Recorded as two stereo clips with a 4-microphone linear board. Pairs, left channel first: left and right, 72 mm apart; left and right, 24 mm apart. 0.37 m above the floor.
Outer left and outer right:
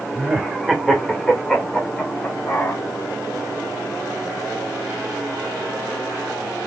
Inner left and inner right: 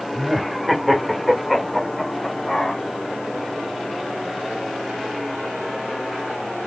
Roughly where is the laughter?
Centre.